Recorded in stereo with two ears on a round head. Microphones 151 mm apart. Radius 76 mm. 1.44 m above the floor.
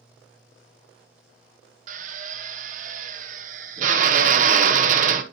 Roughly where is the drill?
Right.